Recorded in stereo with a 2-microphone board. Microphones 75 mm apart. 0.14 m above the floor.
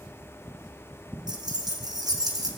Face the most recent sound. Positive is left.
turn(degrees=-60)  # may be behind; listen again after turning